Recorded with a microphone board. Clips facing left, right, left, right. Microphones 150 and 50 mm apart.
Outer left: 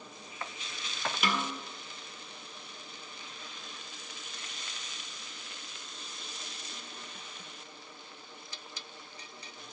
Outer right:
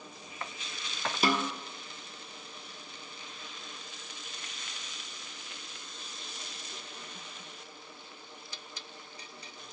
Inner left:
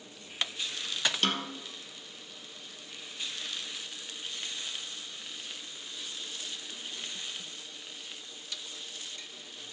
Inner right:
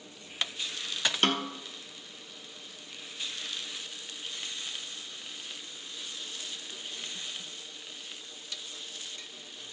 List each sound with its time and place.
1.2 s a snare drum: 35° right (ahead or behind), 1.2 m